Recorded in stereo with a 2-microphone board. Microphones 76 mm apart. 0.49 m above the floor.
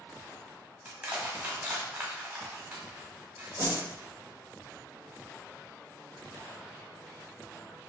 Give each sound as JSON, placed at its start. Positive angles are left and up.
{"t": 0.8, "sound": "crushing", "side_deg": -30, "distance_m": 1.2}
{"t": 3.6, "sound": "a whoosh", "side_deg": -35, "distance_m": 1.4}